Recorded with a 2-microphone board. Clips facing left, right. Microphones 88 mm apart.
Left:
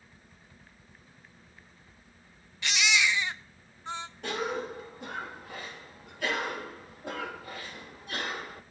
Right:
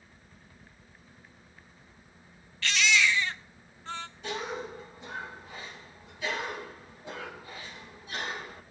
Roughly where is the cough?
Left.